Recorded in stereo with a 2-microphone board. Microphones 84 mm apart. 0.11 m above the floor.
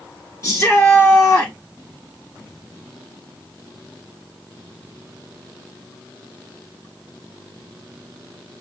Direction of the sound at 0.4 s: 35° left (ahead or behind).